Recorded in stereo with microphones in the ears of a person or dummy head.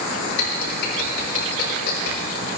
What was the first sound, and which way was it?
Typing on a keyboard, 65° left (ahead or behind).